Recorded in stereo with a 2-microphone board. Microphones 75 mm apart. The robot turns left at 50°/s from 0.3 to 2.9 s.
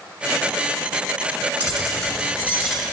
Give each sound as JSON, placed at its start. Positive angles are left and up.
{"t": 1.6, "sound": "keys jangling", "azimuth_deg": -160, "distance_m": 2.5}